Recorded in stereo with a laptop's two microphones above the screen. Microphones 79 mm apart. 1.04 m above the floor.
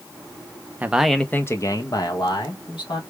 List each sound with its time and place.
0.8 s a man speaking: 20° right (ahead or behind), 0.5 m; by 3.0 s 75° left (ahead or behind), 1.4 m